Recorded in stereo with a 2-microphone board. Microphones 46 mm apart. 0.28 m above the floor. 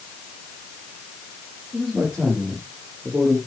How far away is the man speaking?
About 7 m.